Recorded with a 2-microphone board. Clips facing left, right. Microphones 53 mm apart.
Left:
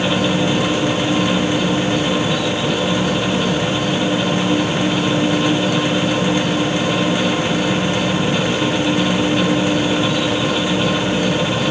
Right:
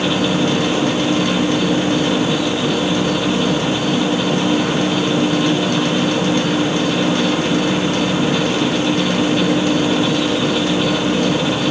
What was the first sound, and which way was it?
An insect, 70° right (ahead or behind).